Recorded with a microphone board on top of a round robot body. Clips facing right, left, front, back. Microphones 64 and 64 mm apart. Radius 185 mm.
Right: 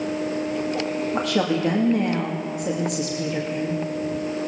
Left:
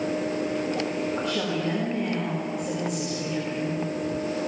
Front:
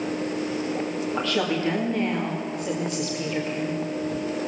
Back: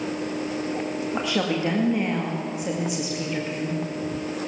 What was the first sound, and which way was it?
A woman speaking, 105° right.